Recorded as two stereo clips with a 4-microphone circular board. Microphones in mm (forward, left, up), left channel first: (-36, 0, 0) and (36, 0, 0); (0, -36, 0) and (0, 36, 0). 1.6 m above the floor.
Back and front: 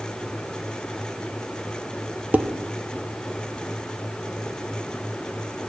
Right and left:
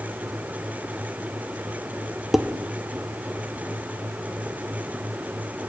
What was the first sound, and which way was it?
Dishes clattering, 10° left.